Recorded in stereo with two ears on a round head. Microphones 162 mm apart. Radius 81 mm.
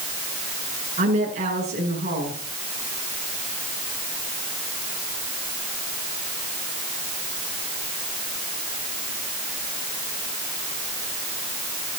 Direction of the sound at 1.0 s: 40° right (ahead or behind).